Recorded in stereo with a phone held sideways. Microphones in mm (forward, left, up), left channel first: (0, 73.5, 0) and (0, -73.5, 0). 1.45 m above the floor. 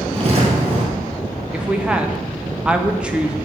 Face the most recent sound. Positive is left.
turn(degrees=-5)  # may be behind; listen again after turning